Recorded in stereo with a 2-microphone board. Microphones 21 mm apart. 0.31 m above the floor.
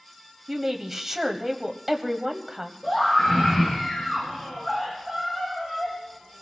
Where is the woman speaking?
10° right (ahead or behind), 1.4 m.